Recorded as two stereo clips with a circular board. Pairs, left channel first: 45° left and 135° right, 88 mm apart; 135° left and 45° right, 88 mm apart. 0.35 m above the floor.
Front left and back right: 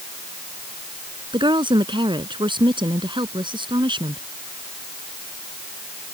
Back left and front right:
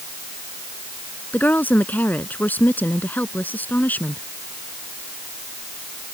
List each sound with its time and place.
1.3 s a woman speaking: 155° right